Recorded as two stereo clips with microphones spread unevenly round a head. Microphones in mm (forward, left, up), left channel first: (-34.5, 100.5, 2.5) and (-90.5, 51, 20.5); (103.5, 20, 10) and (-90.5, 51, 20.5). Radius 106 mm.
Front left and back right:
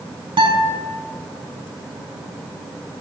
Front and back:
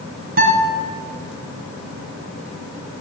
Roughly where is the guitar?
Behind right.